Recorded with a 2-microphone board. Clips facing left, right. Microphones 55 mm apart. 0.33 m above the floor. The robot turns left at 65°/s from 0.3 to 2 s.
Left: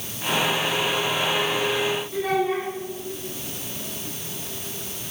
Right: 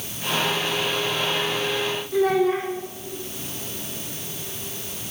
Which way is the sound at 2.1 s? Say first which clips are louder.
Right 6 dB; 60° right (ahead or behind).